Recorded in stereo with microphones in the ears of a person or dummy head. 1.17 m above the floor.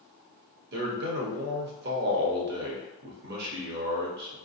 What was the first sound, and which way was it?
A man speaking, 50° right (ahead or behind).